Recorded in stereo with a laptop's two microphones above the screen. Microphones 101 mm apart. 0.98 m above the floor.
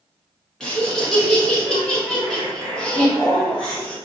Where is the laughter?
5° left (ahead or behind), 1.1 m.